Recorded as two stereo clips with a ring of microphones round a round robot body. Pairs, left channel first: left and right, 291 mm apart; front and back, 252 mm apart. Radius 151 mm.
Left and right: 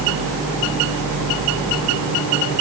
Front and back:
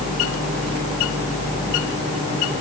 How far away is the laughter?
I don't hear laughter.